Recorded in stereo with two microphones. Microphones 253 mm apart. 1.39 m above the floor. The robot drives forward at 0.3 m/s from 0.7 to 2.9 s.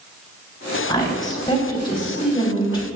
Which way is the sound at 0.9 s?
15° left (ahead or behind).